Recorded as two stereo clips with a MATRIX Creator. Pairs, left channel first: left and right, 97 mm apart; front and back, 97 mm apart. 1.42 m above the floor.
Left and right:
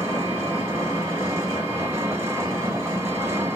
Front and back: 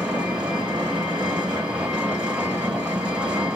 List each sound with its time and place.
0.0 s an engine running: 115° right, 1.0 m